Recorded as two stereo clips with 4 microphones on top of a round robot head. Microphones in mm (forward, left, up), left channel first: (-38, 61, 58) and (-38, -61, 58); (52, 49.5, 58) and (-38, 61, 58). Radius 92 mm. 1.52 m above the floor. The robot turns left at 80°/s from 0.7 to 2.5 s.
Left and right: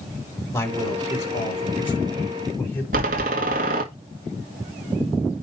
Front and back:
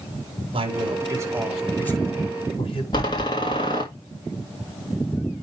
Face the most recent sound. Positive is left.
turn(degrees=-65)